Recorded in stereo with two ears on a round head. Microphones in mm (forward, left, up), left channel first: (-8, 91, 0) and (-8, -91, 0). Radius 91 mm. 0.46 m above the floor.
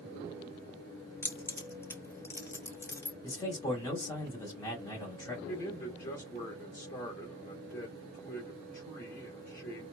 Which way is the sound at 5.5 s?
40° left (ahead or behind).